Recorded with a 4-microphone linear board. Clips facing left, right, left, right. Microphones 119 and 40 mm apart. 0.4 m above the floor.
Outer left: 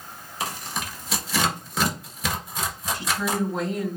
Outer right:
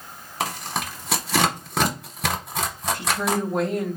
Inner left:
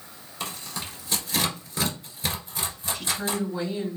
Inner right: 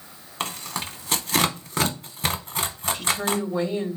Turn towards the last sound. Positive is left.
turn(degrees=-60)  # may be behind; listen again after turning